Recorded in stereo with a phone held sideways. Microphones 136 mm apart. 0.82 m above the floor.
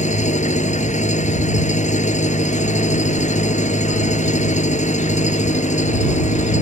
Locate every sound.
0.0 s an engine running: 60° left (ahead or behind)